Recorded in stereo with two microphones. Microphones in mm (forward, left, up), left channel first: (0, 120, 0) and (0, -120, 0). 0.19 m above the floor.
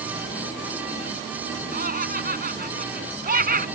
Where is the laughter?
40° right (ahead or behind).